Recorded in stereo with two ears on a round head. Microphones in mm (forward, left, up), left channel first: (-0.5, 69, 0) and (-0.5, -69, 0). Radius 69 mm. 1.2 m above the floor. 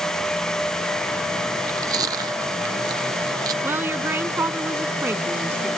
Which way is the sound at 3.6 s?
15° right (ahead or behind).